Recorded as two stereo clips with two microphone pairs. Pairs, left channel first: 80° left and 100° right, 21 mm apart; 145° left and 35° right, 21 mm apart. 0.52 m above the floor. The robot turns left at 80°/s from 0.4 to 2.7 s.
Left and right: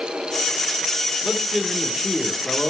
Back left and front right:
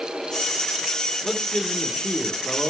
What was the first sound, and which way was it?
A man speaking, 130° right.